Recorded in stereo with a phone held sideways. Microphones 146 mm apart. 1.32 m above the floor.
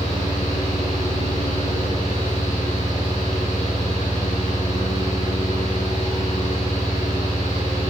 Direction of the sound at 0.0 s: 70° left (ahead or behind).